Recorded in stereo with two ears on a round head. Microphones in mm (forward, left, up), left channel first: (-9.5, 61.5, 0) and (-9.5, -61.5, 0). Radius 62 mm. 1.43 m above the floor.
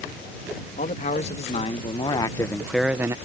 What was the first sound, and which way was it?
A man speaking, 60° left (ahead or behind).